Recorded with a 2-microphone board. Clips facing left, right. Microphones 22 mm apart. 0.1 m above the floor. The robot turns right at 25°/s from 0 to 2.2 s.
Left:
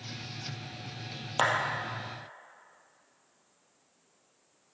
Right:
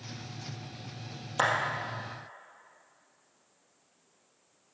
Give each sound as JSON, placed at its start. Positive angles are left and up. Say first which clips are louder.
{"t": 1.4, "sound": "a clap", "louder": "even", "side_deg": 25, "distance_m": 2.0}